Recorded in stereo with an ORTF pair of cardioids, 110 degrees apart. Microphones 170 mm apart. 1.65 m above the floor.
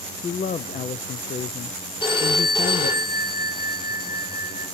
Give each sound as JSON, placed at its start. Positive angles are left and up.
{"t": 0.2, "sound": "a man speaking", "azimuth_deg": 45, "distance_m": 0.7}
{"t": 2.0, "sound": "a phone ringing", "azimuth_deg": 30, "distance_m": 5.0}